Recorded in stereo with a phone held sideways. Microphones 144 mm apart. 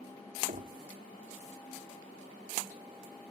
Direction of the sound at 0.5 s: 80° right.